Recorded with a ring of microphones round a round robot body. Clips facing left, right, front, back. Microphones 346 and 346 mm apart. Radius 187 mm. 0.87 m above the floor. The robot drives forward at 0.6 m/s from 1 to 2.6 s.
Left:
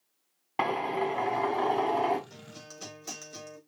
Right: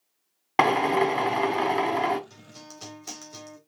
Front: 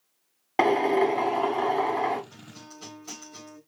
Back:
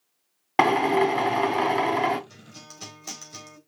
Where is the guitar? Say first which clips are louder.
Right 1 dB, front 2 dB; 165° right, 4 m.